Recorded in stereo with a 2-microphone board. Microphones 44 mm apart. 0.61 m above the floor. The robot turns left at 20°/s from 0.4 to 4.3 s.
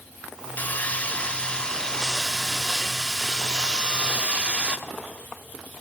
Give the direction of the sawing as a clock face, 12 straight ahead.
11 o'clock.